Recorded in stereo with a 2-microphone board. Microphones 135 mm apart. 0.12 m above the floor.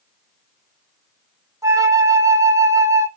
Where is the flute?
25° right (ahead or behind), 0.8 m.